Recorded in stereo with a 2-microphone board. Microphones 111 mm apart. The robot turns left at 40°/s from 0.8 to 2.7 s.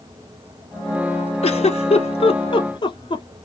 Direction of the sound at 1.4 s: 60° left (ahead or behind).